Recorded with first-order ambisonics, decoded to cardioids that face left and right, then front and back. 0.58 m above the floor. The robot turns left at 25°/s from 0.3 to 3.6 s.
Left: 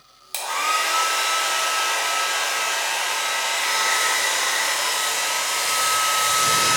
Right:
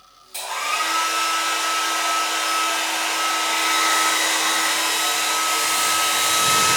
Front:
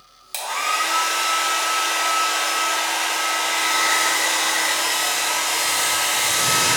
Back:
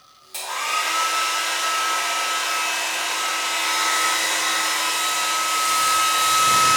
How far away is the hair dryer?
About 1.0 m.